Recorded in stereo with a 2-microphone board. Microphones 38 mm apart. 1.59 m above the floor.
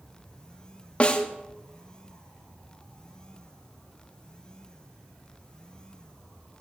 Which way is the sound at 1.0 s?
35° left (ahead or behind).